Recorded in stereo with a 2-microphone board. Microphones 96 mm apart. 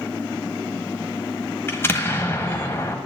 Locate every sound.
1.7 s an explosion: 25° left (ahead or behind), 1.3 m